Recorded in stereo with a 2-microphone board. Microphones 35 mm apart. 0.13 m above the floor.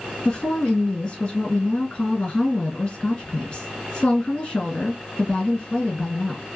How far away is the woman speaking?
About 1.8 m.